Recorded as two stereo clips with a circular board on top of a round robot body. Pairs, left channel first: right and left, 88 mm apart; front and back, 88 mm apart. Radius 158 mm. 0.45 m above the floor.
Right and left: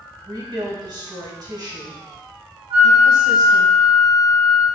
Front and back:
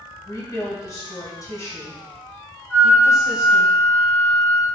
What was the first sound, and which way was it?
A woman speaking, 50° left.